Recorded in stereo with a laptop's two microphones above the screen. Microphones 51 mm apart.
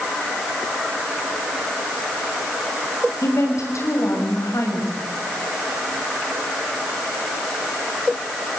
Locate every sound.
3.2 s a woman speaking: 85° left, 6 m